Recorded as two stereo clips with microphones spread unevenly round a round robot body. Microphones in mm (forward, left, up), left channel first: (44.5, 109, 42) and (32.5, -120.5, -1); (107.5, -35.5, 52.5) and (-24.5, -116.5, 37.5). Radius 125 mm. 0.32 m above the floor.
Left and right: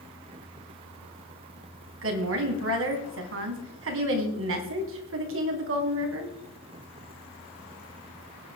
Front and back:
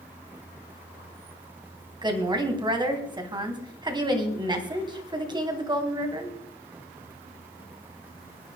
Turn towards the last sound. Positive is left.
turn(degrees=-90)